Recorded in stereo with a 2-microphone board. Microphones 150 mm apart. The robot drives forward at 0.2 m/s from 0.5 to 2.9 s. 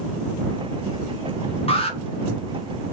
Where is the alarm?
40° left (ahead or behind), 0.6 m.